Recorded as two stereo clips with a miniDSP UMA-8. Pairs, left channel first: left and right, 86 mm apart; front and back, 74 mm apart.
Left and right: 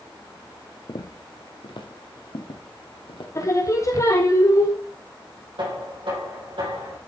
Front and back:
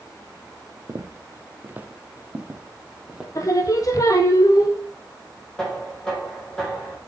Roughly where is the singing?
Ahead left.